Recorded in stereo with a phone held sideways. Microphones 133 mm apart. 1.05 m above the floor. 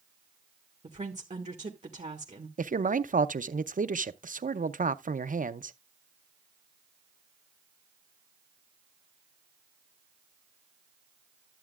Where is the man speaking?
75° right (ahead or behind), 0.5 m.